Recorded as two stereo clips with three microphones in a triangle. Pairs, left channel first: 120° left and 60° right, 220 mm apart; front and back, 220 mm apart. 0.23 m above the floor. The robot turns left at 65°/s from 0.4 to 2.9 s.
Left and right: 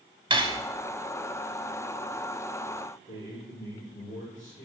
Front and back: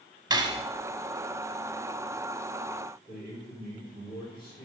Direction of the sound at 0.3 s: 120° right.